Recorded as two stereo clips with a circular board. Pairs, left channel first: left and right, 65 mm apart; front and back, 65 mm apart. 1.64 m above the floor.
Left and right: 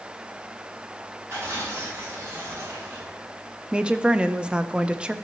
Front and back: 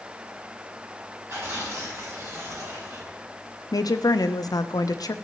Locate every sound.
1.3 s tearing paper: 140° right, 5 m
3.7 s a woman speaking: 15° right, 0.6 m